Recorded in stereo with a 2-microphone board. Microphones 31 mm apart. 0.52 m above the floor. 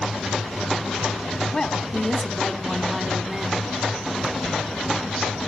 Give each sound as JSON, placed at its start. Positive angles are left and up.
{"t": 1.5, "sound": "a woman speaking", "side_deg": 25, "distance_m": 1.6}